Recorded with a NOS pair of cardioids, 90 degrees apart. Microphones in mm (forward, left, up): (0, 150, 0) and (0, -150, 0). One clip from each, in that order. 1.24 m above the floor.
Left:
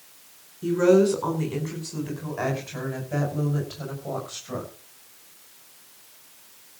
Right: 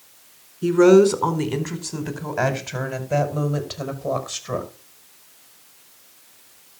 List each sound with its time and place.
0.6 s a woman speaking: 55° right, 4.5 m; by 4.7 s 70° right, 6 m